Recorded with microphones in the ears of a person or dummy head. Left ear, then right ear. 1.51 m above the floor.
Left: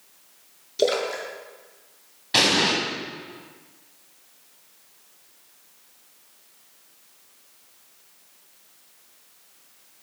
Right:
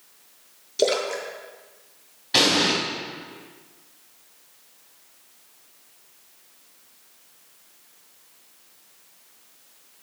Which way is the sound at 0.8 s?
5° right (ahead or behind).